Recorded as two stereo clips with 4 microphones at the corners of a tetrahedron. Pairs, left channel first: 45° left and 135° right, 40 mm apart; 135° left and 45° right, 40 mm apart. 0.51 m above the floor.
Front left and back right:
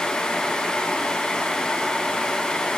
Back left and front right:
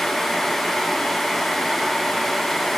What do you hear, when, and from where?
Only background noise.